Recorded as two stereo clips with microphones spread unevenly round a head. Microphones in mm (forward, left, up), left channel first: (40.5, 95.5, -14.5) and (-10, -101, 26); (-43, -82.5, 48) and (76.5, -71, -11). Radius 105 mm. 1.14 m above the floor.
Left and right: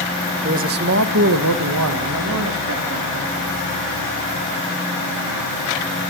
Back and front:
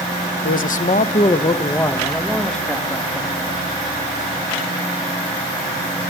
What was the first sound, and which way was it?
A man speaking, 165° right.